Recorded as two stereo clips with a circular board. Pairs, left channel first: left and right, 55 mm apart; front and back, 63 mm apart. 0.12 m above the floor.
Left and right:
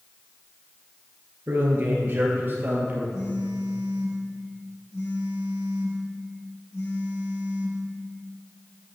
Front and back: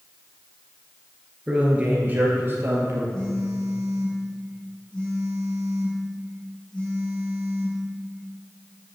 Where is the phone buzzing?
75° left, 3.5 m.